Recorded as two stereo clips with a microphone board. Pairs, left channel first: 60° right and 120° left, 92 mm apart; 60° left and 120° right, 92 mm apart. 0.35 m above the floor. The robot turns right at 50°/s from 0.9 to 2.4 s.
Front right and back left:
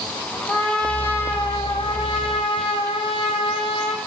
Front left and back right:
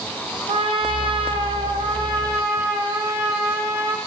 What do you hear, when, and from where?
0.5 s a trumpet: 130° right, 4.5 m; by 4.0 s 55° right, 4.5 m